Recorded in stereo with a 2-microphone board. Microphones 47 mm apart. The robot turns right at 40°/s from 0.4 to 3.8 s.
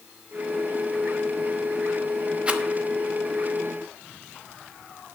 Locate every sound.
2.5 s a rattle: 25° right (ahead or behind), 1.0 m; by 2.6 s 30° right (ahead or behind), 1.0 m